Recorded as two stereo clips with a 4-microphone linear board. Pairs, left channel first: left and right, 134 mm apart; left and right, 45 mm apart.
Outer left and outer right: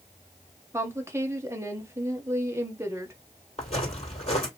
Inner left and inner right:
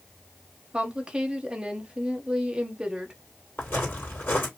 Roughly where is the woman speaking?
Centre.